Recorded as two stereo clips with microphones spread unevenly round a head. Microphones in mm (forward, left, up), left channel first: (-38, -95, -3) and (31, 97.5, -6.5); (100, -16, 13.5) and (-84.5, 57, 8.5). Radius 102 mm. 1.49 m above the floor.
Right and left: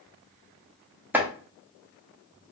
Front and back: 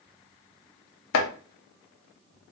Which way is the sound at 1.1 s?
10° right.